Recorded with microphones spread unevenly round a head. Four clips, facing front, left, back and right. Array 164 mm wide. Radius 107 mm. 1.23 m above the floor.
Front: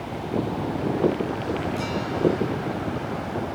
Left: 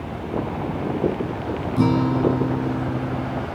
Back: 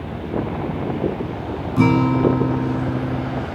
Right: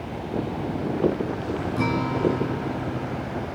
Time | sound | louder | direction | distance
1.8 | a guitar | left 6 dB, back 9 dB | 145° left | ?